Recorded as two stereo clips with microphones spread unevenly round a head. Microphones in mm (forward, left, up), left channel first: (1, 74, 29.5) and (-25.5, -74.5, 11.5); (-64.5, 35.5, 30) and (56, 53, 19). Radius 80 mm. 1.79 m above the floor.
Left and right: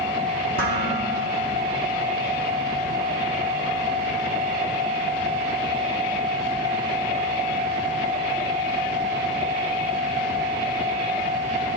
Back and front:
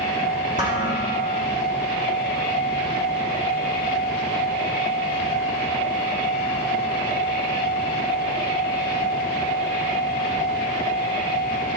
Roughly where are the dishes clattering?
Behind right.